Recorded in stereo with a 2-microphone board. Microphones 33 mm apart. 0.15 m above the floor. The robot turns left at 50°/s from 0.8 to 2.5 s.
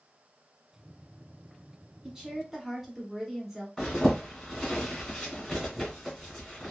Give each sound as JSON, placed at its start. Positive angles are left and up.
{"t": 2.0, "sound": "a woman speaking", "side_deg": -15, "distance_m": 1.1}
{"t": 3.8, "sound": "a zipper", "side_deg": 10, "distance_m": 1.7}